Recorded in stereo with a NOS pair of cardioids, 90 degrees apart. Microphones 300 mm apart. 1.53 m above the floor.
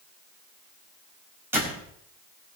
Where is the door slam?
10° right, 6 m.